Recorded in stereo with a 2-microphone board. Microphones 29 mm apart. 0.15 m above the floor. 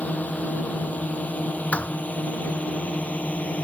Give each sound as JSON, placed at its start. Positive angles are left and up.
{"t": 0.0, "sound": "a drone", "side_deg": 60}
{"t": 1.7, "sound": "a thud", "side_deg": 50}